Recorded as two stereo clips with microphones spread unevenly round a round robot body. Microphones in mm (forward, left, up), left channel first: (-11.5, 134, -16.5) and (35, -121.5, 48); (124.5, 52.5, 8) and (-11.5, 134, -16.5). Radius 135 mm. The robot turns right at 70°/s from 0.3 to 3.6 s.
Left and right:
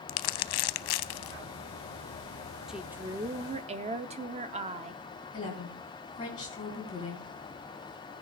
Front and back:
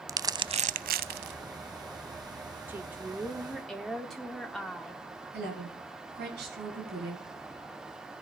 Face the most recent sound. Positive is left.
turn(degrees=170)